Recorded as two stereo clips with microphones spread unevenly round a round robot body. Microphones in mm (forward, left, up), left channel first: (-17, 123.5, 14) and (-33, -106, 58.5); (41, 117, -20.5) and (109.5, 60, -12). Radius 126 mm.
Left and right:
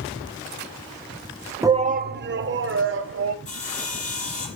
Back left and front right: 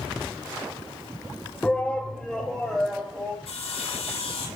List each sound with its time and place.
1.6 s a shout: straight behind, 0.7 m; by 3.4 s 130° right, 2.5 m
3.5 s sawing: 145° left, 7 m